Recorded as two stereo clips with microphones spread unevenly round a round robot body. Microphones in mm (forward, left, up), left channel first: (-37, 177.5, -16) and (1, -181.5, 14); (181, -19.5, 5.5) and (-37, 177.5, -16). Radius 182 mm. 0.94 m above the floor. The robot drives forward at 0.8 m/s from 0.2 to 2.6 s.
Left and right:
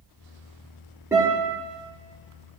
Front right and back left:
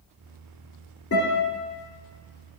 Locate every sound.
1.1 s a guitar: straight ahead, 4 m